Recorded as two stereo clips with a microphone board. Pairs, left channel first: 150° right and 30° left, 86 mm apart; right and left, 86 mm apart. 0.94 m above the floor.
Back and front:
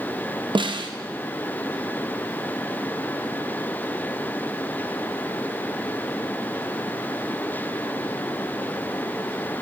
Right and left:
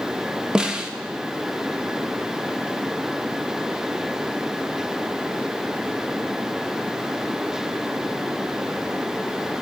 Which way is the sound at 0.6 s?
10° left.